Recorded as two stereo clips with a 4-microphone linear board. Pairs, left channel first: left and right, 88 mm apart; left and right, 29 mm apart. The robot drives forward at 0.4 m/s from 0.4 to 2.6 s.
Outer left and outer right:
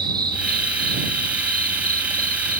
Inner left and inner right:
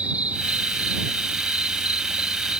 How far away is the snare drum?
No snare drum in this recording.